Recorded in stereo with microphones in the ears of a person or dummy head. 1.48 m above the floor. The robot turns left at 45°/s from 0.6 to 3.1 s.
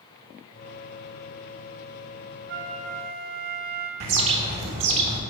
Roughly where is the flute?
Right.